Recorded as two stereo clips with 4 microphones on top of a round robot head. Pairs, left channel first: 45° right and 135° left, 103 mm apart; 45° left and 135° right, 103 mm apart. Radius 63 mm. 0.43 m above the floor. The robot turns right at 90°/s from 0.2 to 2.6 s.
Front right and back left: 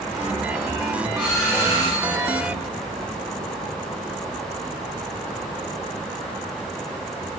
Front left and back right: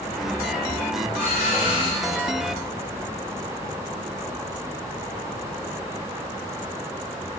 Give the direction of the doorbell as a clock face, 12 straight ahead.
11 o'clock.